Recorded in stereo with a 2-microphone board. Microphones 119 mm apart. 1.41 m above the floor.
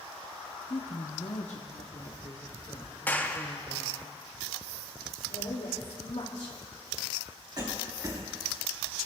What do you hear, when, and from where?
0.7 s a woman speaking: 50° left (ahead or behind), 0.8 m; by 4.1 s 55° left (ahead or behind), 3 m
3.1 s a clap: 15° left (ahead or behind), 0.6 m
5.3 s a woman speaking: 80° left, 2.5 m
7.6 s a cough: 40° right (ahead or behind), 3.5 m